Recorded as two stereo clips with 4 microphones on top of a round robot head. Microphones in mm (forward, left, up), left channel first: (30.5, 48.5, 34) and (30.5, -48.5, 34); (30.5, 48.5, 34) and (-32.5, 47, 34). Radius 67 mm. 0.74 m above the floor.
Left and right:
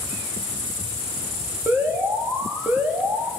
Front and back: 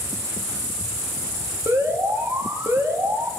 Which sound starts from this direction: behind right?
An alarm, at 1.7 s.